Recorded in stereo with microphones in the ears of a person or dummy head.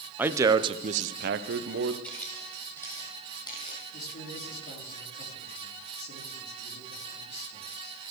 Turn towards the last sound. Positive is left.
turn(degrees=60)  # may be behind; listen again after turning